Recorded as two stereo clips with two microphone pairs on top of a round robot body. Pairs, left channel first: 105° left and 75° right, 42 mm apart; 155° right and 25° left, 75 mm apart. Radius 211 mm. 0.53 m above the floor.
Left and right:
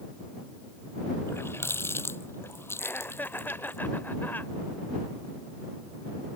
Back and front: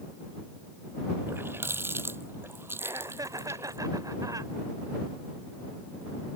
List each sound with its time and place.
1.3 s a running tap: 80° left
2.8 s laughter: 60° left